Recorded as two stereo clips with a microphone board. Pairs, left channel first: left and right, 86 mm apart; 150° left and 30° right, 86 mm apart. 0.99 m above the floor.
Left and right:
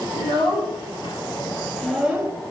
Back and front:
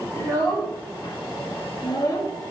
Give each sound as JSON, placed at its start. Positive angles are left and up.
{"t": 0.1, "sound": "a child speaking", "azimuth_deg": 90, "distance_m": 1.6}